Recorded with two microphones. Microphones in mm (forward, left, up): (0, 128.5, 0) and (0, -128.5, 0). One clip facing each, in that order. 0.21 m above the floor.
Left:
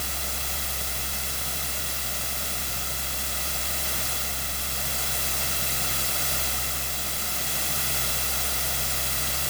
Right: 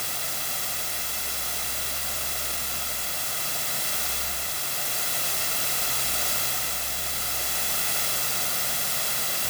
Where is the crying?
I don't hear crying.